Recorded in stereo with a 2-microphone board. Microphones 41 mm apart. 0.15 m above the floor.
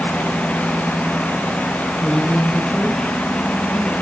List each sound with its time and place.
2.0 s a woman speaking: 5° left (ahead or behind), 2 m